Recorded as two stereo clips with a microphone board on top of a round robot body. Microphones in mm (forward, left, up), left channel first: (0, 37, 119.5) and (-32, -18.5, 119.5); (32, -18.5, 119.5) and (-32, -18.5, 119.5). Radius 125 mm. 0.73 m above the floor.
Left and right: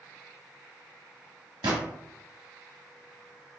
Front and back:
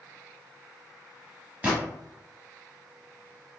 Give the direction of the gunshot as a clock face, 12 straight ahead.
4 o'clock.